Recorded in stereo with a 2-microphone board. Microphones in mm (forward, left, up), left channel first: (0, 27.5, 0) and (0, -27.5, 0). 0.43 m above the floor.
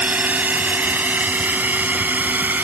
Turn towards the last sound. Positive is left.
turn(degrees=-35)  # may be behind; listen again after turning